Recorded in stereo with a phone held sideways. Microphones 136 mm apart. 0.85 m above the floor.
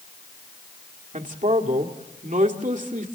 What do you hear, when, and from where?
1.1 s a man speaking: 75° right (ahead or behind), 1.8 m